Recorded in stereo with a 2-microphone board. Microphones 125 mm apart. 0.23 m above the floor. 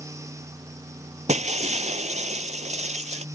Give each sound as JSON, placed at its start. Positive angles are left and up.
{"t": 1.3, "sound": "breaking glass", "side_deg": -70}